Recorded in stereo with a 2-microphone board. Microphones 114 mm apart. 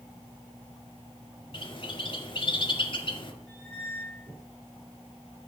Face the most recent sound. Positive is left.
turn(degrees=10)  # may be behind; listen again after turning